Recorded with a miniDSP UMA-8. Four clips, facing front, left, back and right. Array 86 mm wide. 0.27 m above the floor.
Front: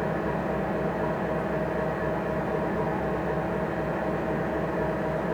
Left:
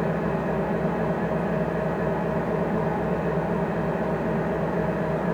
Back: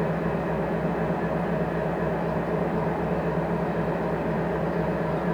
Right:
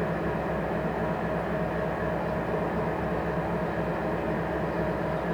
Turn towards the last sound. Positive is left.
turn(degrees=140)